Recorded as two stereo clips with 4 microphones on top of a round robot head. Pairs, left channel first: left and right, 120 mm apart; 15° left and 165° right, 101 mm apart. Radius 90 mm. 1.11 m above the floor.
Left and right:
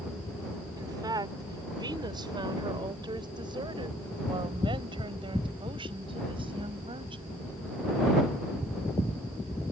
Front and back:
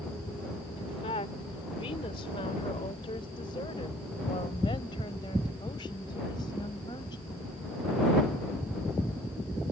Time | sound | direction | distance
0.8 | a woman speaking | 30° right | ?